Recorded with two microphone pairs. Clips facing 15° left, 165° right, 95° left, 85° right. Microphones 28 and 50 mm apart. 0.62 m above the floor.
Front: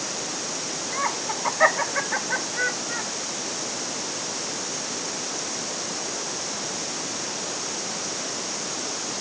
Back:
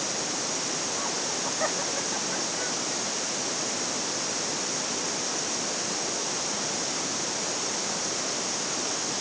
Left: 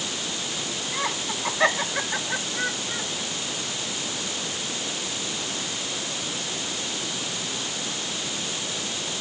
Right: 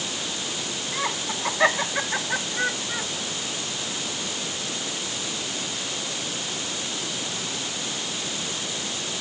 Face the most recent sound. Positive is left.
turn(degrees=-5)